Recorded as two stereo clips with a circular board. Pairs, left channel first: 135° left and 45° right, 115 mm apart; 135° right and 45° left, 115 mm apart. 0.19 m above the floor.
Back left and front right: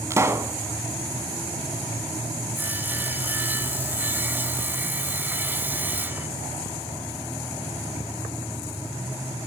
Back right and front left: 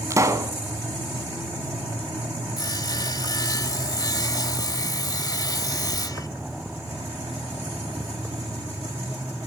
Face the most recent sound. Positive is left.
turn(degrees=-105)